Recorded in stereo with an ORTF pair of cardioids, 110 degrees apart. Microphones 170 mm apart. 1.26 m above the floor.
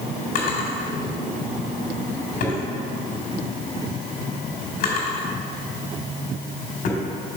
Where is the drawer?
65° left, 2.5 m.